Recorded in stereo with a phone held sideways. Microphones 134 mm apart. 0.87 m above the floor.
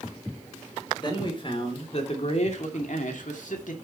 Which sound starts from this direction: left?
A man speaking, at 1.0 s.